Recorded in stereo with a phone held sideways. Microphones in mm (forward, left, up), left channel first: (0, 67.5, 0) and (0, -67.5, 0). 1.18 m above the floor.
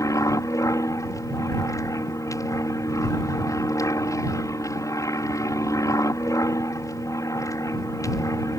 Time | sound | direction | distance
0.0 | an aircraft | 25° left (ahead or behind) | ?